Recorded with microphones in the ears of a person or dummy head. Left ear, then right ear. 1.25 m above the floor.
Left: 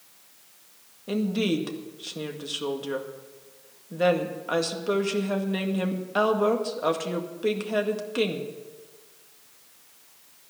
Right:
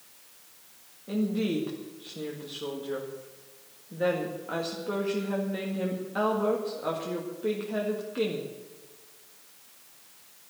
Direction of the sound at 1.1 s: 75° left (ahead or behind).